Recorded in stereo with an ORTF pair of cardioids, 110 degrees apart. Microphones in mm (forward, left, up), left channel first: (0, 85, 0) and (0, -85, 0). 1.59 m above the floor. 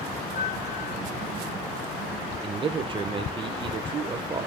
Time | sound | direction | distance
0.3 | a piano | 45° left | 3.5 m
2.4 | a man speaking | 30° right | 1.5 m